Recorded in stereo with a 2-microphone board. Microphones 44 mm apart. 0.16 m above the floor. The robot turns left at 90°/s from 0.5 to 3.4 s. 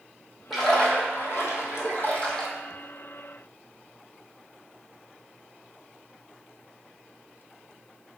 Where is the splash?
175° right, 1.0 m; by 2.5 s 5° left, 1.0 m.